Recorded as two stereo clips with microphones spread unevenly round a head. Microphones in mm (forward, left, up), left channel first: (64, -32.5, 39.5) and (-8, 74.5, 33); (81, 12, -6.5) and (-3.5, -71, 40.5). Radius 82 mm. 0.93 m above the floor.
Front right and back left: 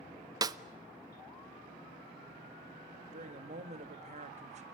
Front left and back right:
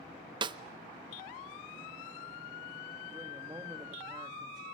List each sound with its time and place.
0.4 s a snare drum: 160° left, 0.7 m
3.1 s a woman speaking: 150° left, 1.9 m